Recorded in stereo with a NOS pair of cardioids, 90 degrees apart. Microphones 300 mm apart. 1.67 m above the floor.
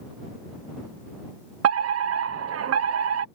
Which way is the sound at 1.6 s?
55° right.